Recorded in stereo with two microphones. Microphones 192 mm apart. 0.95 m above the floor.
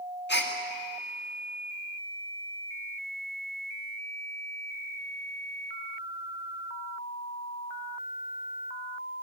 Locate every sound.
0.3 s a gasp: 65° left (ahead or behind), 2 m